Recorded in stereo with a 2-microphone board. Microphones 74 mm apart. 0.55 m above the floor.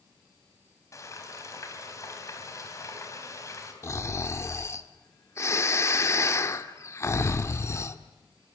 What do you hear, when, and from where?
0.9 s frying: 40° left (ahead or behind), 4 m
3.8 s snoring: 35° left (ahead or behind), 1.4 m